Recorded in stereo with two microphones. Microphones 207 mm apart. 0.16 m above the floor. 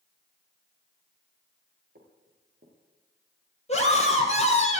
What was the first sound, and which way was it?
Footsteps, 55° right (ahead or behind).